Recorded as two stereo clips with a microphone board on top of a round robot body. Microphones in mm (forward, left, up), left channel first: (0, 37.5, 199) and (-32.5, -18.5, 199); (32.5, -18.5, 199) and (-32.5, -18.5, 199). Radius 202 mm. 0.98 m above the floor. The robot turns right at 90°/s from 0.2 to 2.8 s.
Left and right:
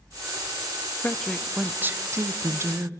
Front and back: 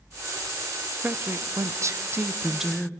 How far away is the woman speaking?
About 0.9 m.